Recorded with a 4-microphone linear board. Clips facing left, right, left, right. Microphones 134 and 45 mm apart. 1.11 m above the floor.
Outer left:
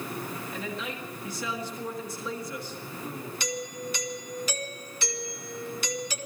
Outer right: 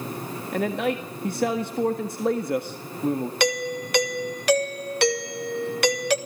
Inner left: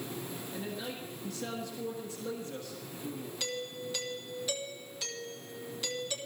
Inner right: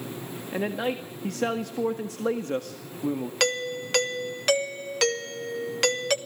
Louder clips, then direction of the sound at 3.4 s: Outer right 7 dB, inner right 12 dB; 60° right (ahead or behind).